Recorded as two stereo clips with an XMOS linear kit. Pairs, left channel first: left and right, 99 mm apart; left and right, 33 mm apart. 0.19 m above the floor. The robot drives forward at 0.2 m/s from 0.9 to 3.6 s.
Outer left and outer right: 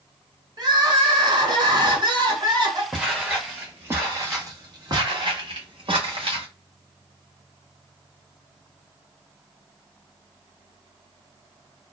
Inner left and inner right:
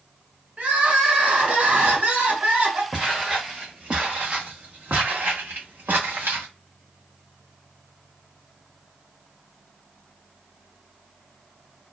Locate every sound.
0.6 s crying: 45° right (ahead or behind), 1.3 m; by 2.8 s 50° right (ahead or behind), 1.3 m
2.9 s footsteps: 5° right (ahead or behind), 1.4 m; by 6.5 s 65° right (ahead or behind), 2 m